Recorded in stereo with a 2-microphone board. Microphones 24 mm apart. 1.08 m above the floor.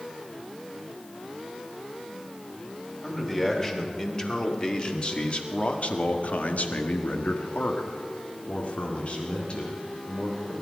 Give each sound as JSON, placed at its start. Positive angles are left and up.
{"t": 3.0, "sound": "a man speaking", "side_deg": 15, "distance_m": 3.0}